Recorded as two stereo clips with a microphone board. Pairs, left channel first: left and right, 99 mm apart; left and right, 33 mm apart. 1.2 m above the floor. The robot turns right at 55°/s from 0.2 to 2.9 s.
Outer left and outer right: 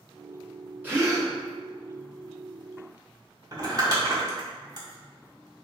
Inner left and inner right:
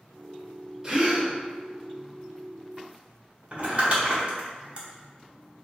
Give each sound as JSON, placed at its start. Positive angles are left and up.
{"t": 0.8, "sound": "a gasp", "side_deg": -20, "distance_m": 1.4}
{"t": 3.5, "sound": "crumpling", "side_deg": -40, "distance_m": 1.2}